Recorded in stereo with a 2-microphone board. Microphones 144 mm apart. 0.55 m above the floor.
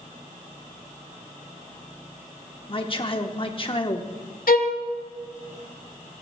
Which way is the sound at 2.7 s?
40° left (ahead or behind).